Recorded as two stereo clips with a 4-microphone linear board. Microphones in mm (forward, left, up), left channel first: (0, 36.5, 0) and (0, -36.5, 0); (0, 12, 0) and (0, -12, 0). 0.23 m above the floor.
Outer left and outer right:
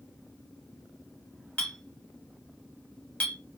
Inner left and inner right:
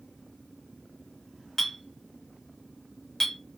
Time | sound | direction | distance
1.6 | a clink | 20° left (ahead or behind) | 0.9 m